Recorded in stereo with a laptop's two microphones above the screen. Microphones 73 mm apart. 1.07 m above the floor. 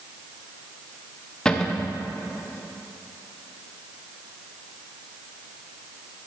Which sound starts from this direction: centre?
A cupboard door, at 1.4 s.